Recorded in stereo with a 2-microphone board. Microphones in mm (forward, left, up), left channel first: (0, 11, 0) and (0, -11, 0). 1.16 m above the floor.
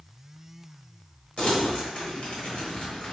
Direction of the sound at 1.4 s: 55° left (ahead or behind).